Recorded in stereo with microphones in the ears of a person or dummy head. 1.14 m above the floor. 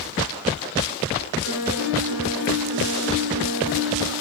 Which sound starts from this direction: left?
A piano, at 1.4 s.